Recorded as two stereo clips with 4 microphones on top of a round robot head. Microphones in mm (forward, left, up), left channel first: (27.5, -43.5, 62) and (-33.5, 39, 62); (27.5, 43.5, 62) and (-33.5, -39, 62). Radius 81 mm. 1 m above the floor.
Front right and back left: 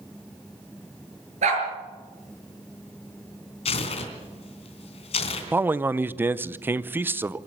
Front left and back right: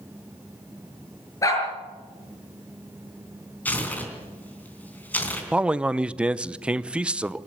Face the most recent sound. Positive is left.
turn(degrees=165)